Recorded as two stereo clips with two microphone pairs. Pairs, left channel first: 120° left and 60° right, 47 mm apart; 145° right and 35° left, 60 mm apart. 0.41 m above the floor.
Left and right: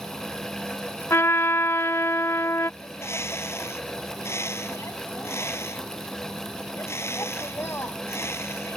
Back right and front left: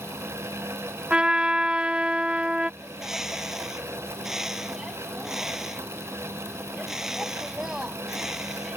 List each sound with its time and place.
1.1 s a trumpet: 110° left
2.8 s a bird: 120° left